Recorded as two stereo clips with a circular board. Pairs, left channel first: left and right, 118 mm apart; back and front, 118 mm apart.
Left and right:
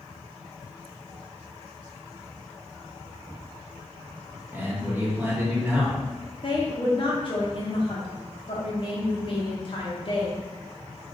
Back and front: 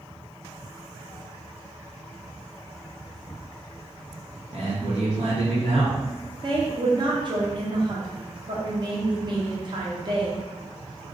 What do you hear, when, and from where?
4.5 s a man speaking: 15° right, 1.3 m
6.4 s a woman speaking: 45° left, 0.8 m